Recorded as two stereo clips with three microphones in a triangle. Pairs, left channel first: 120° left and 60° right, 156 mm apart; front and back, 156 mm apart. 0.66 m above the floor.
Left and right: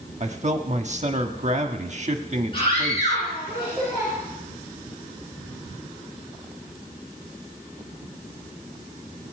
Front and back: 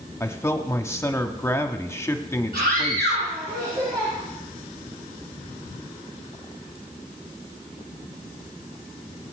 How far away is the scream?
About 7.5 m.